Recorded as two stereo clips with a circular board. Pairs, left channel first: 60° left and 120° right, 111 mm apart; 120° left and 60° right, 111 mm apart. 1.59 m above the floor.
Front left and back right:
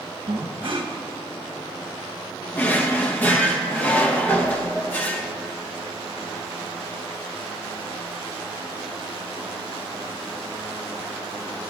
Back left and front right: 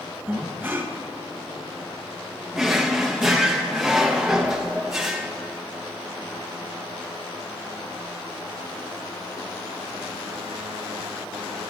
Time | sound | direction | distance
0.3 | breathing | 125° right | 1.1 m
2.5 | a drawer | 20° left | 0.8 m